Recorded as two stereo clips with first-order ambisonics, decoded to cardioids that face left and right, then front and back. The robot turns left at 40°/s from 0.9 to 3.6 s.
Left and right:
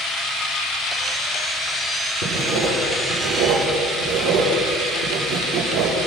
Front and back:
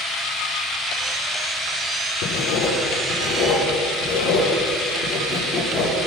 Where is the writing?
35° right, 7.5 m; by 6.0 s 90° right, 7.5 m.